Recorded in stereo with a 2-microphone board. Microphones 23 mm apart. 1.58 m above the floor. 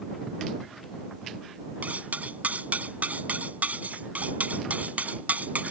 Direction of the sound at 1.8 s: 80° right.